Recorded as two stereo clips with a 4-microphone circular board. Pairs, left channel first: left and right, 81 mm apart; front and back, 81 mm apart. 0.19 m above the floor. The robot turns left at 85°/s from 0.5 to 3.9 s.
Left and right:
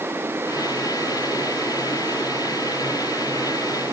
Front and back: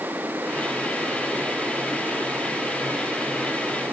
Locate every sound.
Only background noise.